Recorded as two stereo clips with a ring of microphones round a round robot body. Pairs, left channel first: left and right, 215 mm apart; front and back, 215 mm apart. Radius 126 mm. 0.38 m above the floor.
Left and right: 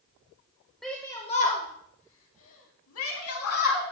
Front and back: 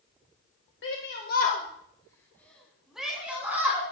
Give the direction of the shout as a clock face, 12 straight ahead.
12 o'clock.